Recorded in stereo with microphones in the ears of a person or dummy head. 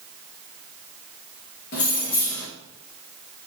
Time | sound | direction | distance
1.7 | keys jangling | 50° left (ahead or behind) | 1.0 m